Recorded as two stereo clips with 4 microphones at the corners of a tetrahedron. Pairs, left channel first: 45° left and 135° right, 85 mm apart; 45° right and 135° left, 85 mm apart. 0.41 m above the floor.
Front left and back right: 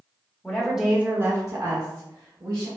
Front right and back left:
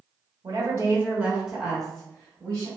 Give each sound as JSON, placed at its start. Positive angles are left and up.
{"t": 0.4, "sound": "a woman speaking", "azimuth_deg": 120, "distance_m": 1.0}